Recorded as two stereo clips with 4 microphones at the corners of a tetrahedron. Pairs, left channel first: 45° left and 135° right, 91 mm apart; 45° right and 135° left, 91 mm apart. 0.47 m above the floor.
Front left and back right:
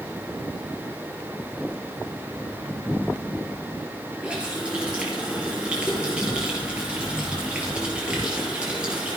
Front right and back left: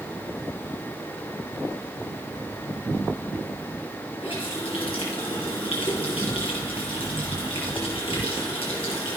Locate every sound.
4.2 s a running tap: 55° right, 6 m